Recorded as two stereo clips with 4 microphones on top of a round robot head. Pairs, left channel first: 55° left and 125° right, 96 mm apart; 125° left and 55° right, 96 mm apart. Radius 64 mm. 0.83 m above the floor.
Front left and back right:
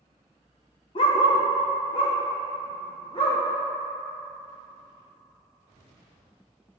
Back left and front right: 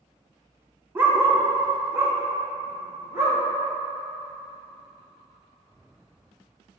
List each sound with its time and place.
0.9 s a dog barking: 15° left, 0.8 m; by 3.4 s 10° left, 2 m